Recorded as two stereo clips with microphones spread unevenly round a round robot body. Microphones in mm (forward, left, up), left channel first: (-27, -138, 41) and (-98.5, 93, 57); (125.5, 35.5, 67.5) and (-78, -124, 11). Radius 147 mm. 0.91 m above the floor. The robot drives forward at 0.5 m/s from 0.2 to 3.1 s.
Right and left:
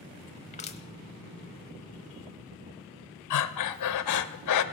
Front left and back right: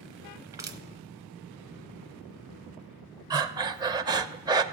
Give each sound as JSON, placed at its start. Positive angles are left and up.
{"t": 0.5, "sound": "crushing", "azimuth_deg": -90, "distance_m": 1.0}
{"t": 3.3, "sound": "breathing", "azimuth_deg": -60, "distance_m": 0.5}